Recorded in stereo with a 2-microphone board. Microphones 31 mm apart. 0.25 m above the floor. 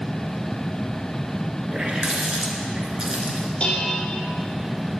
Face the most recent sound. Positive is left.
turn(degrees=30)  # may be behind; listen again after turning